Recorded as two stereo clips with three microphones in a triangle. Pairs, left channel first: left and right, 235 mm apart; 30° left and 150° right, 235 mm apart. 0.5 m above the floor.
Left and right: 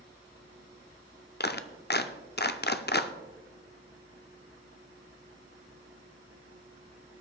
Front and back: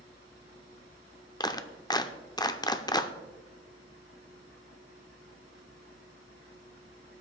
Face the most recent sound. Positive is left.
turn(degrees=95)